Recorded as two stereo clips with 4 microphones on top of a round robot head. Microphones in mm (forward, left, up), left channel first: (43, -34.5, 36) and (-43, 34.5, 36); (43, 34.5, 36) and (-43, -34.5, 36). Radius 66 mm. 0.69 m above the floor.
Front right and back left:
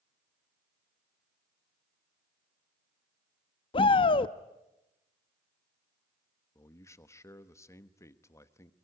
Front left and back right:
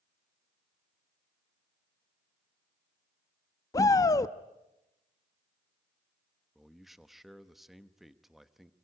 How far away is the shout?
About 0.7 m.